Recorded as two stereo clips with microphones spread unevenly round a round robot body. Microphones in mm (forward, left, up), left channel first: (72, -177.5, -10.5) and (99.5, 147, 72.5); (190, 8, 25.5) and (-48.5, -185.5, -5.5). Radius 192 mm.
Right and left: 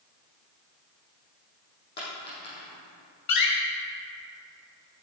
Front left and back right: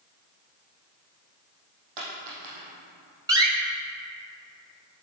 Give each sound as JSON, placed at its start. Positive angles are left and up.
{"t": 2.0, "sound": "a dropped coin", "azimuth_deg": -165, "distance_m": 5.0}
{"t": 3.3, "sound": "a door slam", "azimuth_deg": -60, "distance_m": 2.5}